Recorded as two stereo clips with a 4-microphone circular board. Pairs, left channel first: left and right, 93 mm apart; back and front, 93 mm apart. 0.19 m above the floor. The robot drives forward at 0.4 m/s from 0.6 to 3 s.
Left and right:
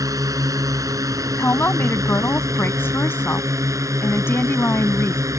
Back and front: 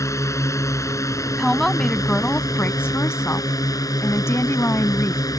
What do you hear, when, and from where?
0.0 s a drone: 130° right; by 5.4 s 135° right
1.4 s a woman speaking: 90° left; by 5.2 s 140° left